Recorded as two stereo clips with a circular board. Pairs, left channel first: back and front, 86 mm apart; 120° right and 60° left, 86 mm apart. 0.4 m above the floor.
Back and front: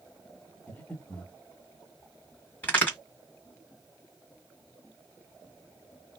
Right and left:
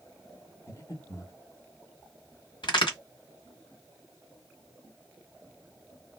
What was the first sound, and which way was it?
Breathing, 115° right.